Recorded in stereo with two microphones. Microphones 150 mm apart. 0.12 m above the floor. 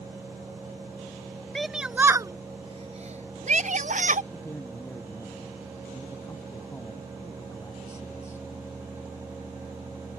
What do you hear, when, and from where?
1.6 s a shout: centre (ahead or behind); by 4.2 s 60° right (ahead or behind)
4.3 s a man speaking: 20° left (ahead or behind)